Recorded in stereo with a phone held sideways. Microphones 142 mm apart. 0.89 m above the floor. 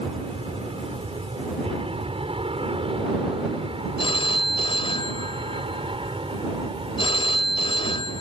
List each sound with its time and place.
0.0 s an aircraft: 40° right (ahead or behind); by 8.2 s 35° right (ahead or behind)
4.0 s a phone ringing: 40° left (ahead or behind)